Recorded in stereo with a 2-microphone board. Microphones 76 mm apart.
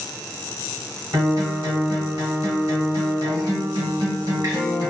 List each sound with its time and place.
1.1 s a guitar: 60° right (ahead or behind), 1.5 m